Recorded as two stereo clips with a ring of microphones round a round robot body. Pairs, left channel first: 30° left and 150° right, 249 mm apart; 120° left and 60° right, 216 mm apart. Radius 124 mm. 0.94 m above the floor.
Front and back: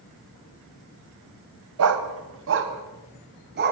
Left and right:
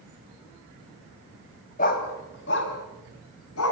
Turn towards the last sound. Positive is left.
turn(degrees=160)